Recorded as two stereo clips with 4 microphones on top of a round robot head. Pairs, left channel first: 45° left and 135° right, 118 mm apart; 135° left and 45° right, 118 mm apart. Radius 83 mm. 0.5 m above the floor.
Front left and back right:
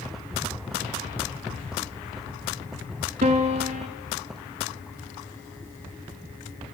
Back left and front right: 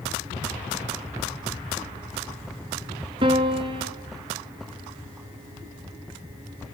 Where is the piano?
95° right, 1.0 m.